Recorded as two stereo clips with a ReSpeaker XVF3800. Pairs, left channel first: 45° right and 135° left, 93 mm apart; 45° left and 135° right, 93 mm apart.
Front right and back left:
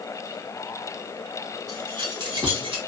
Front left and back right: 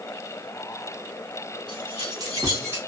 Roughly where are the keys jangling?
Behind.